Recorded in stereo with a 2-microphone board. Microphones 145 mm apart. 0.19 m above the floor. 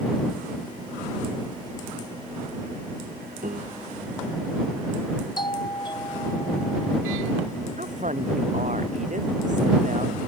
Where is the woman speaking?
60° right (ahead or behind).